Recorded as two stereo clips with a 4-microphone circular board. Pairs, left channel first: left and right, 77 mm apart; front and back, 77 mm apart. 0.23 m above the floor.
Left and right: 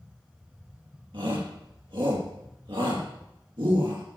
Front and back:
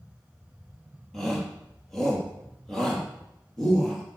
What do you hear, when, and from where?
1.1 s a shout: 85° right, 7 m